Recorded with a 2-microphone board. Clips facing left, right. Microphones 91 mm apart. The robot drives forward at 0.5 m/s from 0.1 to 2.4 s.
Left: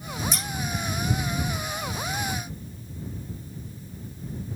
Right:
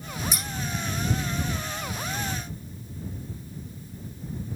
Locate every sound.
0.3 s scissors: 10° right (ahead or behind), 4 m